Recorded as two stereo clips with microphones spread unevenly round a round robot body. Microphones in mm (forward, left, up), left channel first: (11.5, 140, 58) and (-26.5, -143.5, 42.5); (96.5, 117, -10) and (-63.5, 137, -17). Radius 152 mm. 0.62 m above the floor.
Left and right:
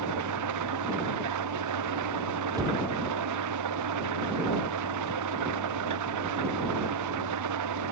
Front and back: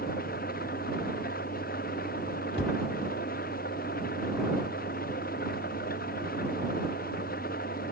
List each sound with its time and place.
0.0 s an engine running: 70° right
2.5 s a cupboard door: 20° right